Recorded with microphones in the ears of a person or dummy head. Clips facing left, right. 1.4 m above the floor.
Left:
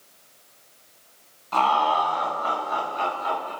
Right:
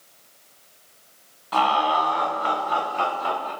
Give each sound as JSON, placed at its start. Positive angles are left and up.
{"t": 1.5, "sound": "laughter", "side_deg": -15, "distance_m": 1.0}